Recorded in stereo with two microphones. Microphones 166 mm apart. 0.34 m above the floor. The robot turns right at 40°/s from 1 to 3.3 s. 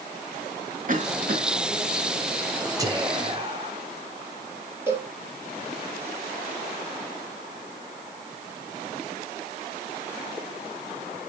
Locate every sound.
0.9 s a cough: 55° right (ahead or behind), 2.5 m; by 1.4 s 65° right (ahead or behind), 2.5 m
2.8 s whispering: 20° right (ahead or behind), 1.2 m; by 3.8 s 30° right (ahead or behind), 1.2 m
4.9 s a cowbell: 15° right (ahead or behind), 4.5 m